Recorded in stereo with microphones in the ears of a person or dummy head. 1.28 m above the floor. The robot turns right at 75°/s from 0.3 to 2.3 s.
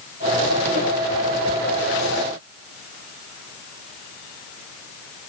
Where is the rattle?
I don't hear a rattle.